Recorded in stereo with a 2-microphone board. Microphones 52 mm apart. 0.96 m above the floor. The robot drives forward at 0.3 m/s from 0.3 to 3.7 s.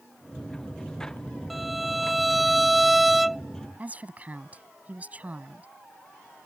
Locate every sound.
1.5 s a violin: 5° right (ahead or behind)
3.8 s a woman speaking: 25° right (ahead or behind)